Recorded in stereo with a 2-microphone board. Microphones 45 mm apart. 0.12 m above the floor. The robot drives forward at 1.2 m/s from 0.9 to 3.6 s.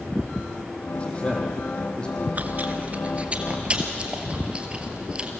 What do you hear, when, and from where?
0.9 s a man speaking: 25° left (ahead or behind), 4 m; by 2.2 s 20° left (ahead or behind), 5 m
2.4 s chewing: 40° right (ahead or behind), 1.6 m; by 5.3 s 25° right (ahead or behind), 2.5 m